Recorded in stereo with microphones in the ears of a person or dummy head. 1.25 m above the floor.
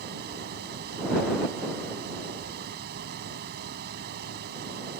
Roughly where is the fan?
Right.